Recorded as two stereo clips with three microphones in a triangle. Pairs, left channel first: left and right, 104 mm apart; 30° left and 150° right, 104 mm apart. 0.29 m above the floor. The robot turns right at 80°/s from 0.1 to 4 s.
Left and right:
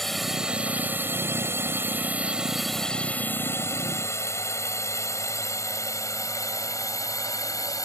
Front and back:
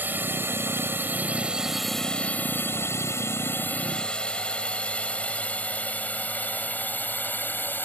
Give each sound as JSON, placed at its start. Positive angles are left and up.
{"t": 0.0, "sound": "a drone", "azimuth_deg": 175}